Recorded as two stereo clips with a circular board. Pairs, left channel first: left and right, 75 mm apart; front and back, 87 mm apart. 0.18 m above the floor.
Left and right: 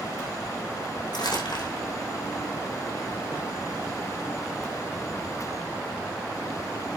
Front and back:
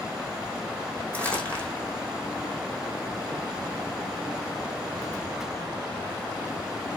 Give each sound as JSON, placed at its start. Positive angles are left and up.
{"t": 1.1, "sound": "crumpling", "azimuth_deg": 75, "distance_m": 5.5}